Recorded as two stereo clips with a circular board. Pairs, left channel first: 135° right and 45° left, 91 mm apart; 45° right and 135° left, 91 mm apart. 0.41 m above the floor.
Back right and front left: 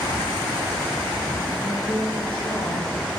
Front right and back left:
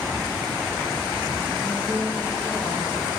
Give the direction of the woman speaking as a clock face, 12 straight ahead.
5 o'clock.